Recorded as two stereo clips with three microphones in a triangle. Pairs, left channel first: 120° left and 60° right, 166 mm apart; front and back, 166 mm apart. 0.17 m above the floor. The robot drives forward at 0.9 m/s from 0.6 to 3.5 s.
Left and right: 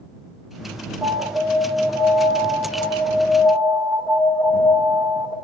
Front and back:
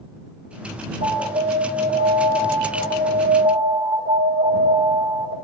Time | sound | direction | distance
1.0 | an alarm | 155° right | 1.9 m